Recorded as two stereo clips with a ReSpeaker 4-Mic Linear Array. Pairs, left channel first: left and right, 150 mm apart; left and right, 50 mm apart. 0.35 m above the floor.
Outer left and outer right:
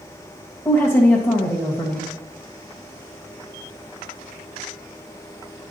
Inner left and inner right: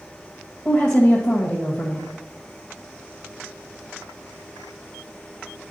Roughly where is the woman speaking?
Centre.